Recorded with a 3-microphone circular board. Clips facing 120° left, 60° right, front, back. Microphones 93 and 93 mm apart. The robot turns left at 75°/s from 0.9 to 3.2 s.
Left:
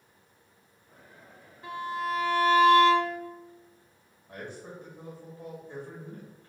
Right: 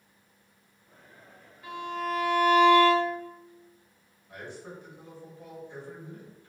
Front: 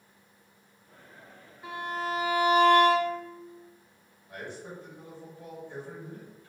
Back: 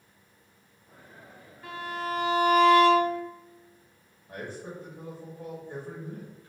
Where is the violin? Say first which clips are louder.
Left 1 dB, front 1 dB; 70° left, 1.3 m; by 3.2 s 50° right, 1.3 m.